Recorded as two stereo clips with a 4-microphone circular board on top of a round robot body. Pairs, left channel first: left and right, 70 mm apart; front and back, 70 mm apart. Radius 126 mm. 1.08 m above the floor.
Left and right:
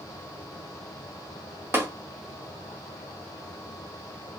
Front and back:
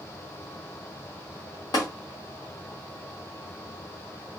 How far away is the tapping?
About 1.2 m.